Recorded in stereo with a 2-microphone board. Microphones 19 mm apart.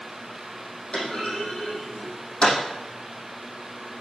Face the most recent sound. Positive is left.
turn(degrees=55)  # may be behind; listen again after turning